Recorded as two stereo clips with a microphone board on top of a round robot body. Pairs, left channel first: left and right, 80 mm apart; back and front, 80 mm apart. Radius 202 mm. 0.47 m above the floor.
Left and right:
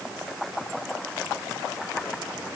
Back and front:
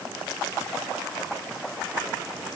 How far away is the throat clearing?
I don't hear throat clearing.